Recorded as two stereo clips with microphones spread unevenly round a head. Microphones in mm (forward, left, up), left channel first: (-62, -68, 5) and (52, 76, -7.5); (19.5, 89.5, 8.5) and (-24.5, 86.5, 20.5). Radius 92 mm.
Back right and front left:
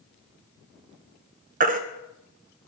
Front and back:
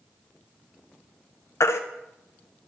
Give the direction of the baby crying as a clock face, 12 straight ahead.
12 o'clock.